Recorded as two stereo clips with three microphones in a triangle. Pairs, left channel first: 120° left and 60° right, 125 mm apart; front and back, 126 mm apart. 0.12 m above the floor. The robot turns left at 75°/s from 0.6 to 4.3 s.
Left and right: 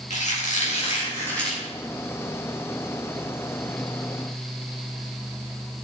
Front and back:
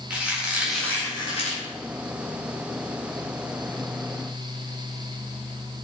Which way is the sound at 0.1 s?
100° left.